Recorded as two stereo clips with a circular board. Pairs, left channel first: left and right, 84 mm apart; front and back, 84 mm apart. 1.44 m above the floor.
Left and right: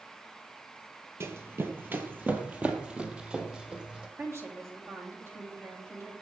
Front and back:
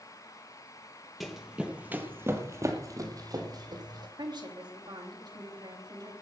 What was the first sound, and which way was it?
Running footsteps, 90° right.